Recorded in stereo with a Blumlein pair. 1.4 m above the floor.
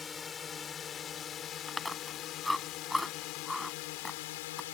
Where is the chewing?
5° left.